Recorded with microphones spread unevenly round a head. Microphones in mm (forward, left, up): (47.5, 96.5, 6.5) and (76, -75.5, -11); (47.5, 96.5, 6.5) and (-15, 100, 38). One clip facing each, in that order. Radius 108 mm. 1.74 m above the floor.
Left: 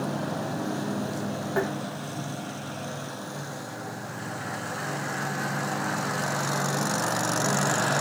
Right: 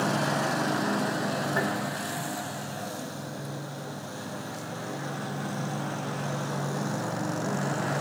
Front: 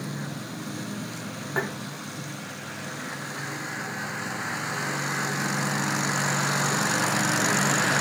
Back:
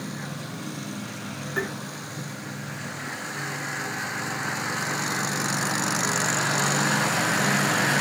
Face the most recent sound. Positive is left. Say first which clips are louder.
# left 5 dB, even
turn(degrees=45)